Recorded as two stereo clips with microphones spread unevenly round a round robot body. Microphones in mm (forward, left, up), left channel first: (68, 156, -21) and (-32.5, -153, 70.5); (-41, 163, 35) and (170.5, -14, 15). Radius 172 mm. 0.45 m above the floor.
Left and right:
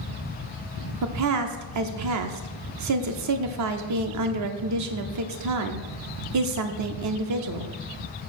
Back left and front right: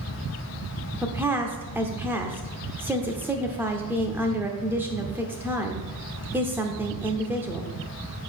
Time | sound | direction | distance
1.0 | a woman speaking | 110° right | 0.9 m